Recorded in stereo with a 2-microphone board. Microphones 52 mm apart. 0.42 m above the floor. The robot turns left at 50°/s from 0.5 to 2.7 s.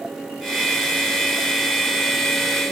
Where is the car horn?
No car horn in this recording.